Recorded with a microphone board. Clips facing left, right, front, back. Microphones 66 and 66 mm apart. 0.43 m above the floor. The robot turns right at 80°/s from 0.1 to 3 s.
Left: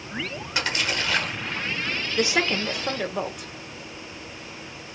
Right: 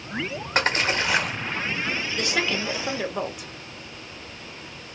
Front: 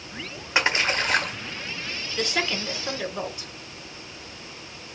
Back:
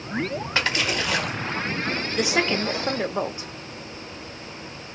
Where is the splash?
65° right, 1.1 m; by 1.4 s straight ahead, 1.1 m.